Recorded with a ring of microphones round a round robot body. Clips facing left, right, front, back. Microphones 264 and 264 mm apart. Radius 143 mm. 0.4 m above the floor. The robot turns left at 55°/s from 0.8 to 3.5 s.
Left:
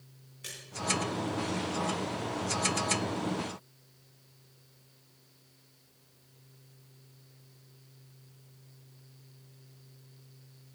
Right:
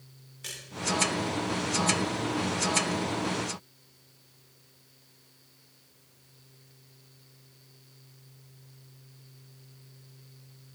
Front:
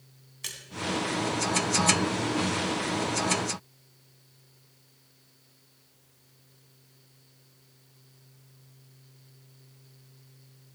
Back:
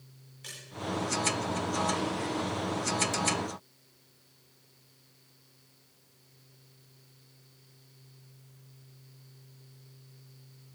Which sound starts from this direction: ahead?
A splash, at 0.4 s.